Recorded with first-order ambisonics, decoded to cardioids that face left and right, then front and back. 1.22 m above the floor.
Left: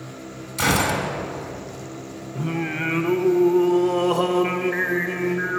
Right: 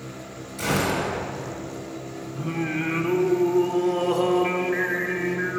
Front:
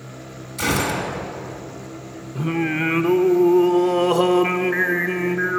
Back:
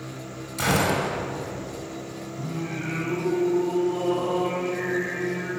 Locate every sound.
0.6 s a gunshot: 95° left, 1.5 m
2.4 s singing: 15° left, 0.5 m